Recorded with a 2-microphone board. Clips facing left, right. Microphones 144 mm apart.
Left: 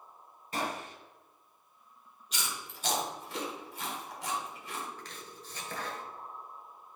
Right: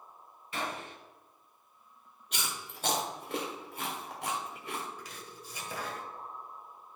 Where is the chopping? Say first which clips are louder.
Even; 10° right (ahead or behind), 1.3 m.